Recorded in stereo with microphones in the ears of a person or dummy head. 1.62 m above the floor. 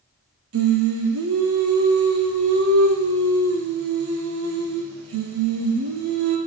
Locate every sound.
0.5 s singing: 70° right (ahead or behind), 1.3 m